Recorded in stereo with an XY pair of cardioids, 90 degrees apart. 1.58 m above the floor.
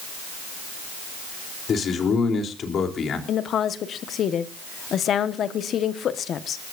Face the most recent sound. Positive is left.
turn(degrees=65)